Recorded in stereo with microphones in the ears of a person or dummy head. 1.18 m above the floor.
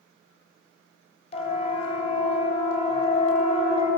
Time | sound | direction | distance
1.3 | a siren | 45° left (ahead or behind) | 6.5 m